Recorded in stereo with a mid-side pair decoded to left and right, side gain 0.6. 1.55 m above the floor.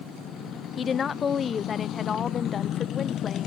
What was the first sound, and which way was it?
A woman speaking, 35° left.